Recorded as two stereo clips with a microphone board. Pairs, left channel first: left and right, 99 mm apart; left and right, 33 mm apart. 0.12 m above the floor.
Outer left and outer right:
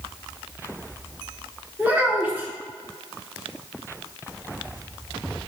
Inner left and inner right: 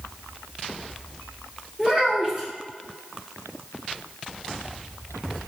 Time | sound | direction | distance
1.8 | a child speaking | 20° right (ahead or behind) | 1.1 m